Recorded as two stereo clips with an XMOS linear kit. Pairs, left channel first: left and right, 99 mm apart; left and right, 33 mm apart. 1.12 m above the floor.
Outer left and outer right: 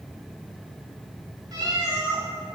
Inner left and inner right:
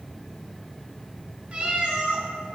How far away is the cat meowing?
About 1.2 m.